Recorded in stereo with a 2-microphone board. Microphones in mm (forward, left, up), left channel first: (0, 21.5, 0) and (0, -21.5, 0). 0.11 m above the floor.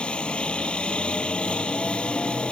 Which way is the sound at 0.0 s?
25° left (ahead or behind).